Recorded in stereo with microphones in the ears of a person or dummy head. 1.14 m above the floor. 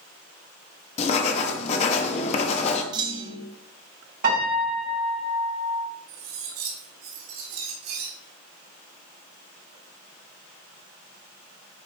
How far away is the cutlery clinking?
About 2.5 m.